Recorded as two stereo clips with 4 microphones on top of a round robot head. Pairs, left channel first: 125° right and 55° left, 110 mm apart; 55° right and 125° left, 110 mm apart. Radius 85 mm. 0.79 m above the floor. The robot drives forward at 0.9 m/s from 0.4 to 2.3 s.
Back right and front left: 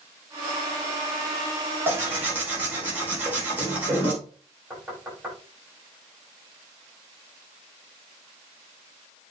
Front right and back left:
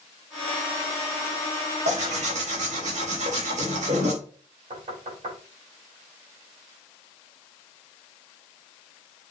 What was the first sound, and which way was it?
Tearing paper, 125° left.